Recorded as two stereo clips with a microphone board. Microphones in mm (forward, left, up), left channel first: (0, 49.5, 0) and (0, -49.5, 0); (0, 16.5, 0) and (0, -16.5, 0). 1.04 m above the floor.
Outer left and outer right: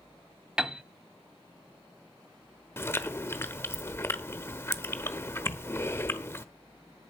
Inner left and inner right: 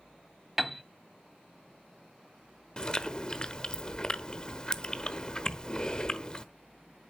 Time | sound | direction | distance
0.6 | a piano | 10° right (ahead or behind) | 0.9 m
2.8 | chewing | 25° left (ahead or behind) | 1.1 m
5.5 | a thud | 70° left (ahead or behind) | 5 m